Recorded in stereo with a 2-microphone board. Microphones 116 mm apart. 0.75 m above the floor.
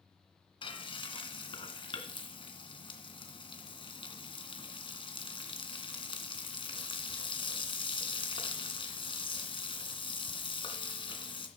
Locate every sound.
0.6 s frying: 45° left (ahead or behind), 2 m